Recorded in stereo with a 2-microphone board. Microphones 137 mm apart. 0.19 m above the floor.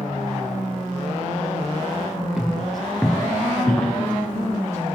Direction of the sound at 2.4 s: 5° right (ahead or behind).